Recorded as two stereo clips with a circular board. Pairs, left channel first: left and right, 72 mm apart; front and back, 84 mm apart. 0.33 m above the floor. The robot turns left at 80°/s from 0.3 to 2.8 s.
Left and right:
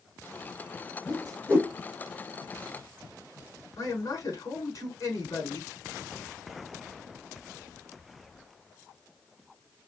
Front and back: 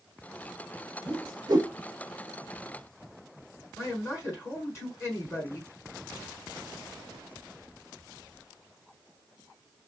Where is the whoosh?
165° right, 4.5 m; by 1.7 s 140° left, 4.5 m.